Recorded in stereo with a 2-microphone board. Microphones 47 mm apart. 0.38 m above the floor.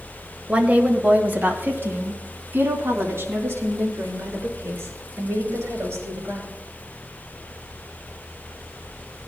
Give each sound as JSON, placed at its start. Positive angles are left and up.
{"t": 0.5, "sound": "a woman speaking", "side_deg": -20, "distance_m": 1.8}